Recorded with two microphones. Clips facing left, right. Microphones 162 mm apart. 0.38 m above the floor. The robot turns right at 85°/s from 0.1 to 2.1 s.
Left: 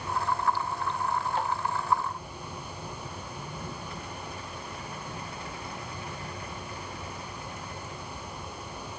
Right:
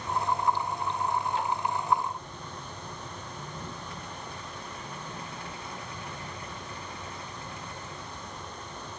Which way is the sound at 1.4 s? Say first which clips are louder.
Left 1 dB; 50° left (ahead or behind).